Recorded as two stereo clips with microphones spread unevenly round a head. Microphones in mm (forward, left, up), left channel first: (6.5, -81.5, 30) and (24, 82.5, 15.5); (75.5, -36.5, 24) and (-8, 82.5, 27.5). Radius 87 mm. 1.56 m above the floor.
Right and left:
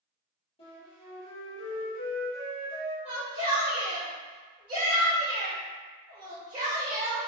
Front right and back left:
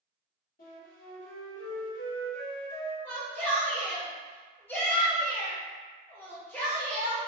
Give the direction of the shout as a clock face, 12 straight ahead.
11 o'clock.